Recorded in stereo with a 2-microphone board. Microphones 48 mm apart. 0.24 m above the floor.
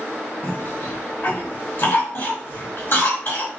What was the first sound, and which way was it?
A cough, 55° left (ahead or behind).